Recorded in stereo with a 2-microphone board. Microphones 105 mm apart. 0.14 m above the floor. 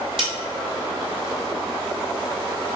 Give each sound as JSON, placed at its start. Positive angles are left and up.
{"t": 0.2, "sound": "a snare drum", "side_deg": -65, "distance_m": 0.9}